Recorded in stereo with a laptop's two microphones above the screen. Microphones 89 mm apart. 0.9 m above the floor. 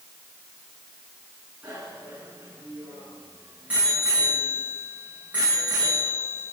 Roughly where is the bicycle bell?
Centre.